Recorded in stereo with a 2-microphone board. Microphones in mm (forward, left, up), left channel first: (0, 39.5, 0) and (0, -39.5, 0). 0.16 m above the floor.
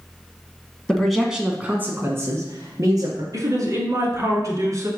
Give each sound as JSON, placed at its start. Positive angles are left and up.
{"t": 0.9, "sound": "a man speaking", "side_deg": 10, "distance_m": 1.0}
{"t": 3.3, "sound": "a woman speaking", "side_deg": -45, "distance_m": 1.8}